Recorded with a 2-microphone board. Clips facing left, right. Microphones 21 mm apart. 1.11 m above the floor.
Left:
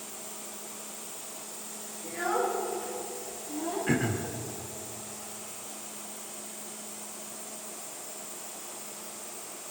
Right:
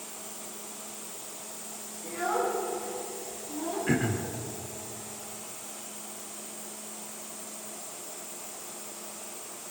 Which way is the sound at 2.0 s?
30° right (ahead or behind).